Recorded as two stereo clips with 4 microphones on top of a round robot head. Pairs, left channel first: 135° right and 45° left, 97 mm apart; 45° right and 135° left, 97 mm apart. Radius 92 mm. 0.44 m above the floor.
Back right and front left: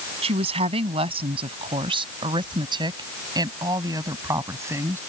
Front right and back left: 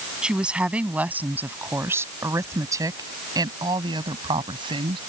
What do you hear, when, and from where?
0.2 s a woman speaking: 55° left; by 5.0 s 110° left